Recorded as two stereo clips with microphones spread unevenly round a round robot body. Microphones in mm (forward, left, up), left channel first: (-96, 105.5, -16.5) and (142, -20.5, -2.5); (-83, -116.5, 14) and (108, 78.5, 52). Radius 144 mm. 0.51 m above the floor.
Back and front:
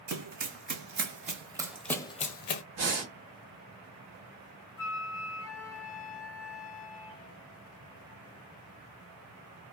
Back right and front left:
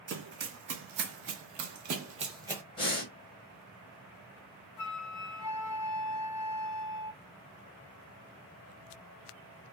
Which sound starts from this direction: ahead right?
Breathing, at 2.8 s.